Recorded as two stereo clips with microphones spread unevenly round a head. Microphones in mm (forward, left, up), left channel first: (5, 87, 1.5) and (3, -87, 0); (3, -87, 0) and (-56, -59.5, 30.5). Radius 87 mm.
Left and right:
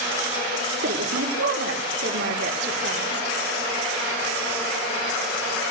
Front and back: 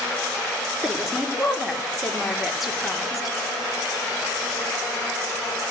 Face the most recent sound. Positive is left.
turn(degrees=-120)